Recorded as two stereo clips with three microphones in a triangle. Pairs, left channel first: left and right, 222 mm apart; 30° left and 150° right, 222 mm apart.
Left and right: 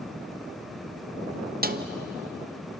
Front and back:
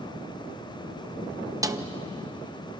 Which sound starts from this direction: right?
A snare drum, at 1.6 s.